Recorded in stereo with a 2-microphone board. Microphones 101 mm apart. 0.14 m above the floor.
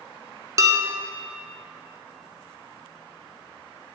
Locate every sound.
0.6 s dishes clattering: 35° right (ahead or behind), 1.0 m